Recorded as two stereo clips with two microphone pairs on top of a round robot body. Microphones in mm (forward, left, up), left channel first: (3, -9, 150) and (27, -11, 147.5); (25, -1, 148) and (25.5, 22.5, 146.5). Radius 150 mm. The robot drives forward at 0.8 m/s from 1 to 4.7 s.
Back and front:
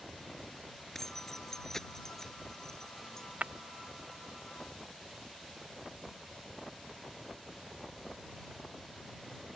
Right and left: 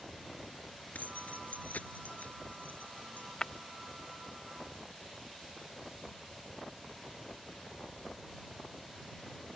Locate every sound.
0.9 s keys jangling: 105° right; by 3.2 s 115° right
3.4 s breaking glass: 35° right; by 3.5 s 40° right